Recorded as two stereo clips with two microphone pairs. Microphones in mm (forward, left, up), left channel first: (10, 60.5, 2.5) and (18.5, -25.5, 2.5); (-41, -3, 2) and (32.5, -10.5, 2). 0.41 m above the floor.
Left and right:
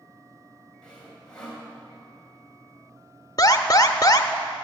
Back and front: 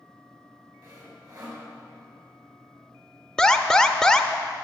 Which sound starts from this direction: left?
An alarm, at 3.4 s.